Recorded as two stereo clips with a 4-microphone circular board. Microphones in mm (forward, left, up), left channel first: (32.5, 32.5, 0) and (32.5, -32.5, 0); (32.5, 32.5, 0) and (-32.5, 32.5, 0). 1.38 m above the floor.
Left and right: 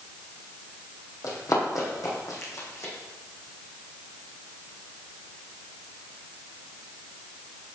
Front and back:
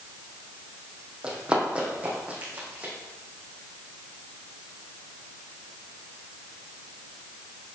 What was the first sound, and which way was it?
Running footsteps, 105° left.